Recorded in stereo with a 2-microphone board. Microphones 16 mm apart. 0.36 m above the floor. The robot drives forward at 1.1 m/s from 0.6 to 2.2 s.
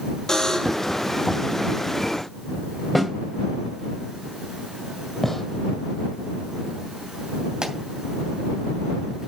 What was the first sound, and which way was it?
A buzzer, 45° left (ahead or behind).